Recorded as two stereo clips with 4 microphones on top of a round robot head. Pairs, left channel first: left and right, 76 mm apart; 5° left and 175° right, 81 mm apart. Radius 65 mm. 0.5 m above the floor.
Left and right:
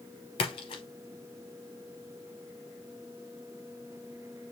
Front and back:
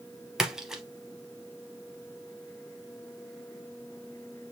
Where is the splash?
100° left, 0.7 m.